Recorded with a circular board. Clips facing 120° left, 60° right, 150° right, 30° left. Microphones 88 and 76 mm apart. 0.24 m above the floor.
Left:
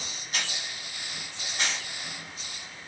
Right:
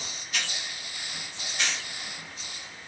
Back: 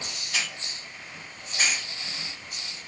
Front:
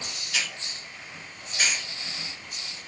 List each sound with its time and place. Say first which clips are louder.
0.3 s a hiss: even, even; 165° left, 1.6 m